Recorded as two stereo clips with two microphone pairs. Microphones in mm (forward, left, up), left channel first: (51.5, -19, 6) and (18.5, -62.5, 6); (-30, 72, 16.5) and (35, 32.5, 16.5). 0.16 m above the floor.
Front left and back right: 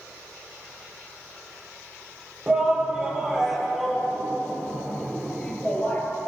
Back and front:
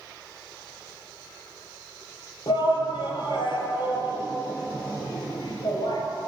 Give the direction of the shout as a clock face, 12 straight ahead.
7 o'clock.